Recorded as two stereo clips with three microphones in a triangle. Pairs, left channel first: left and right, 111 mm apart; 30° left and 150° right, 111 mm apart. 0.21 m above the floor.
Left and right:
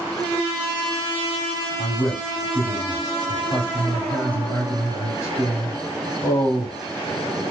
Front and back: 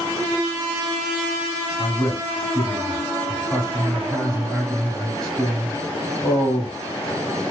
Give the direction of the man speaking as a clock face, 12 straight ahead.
8 o'clock.